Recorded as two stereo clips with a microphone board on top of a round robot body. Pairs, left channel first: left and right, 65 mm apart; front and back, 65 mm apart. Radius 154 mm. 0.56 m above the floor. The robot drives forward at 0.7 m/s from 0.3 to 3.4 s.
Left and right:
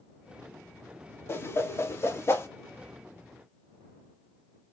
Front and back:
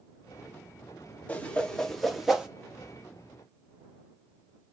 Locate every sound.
1.3 s a whoosh: 60° left, 1.6 m; by 2.5 s 105° left, 1.5 m